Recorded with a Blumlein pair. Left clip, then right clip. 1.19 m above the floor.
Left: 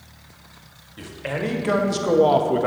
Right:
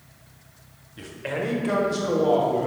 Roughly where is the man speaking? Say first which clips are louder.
Left 1 dB; ahead.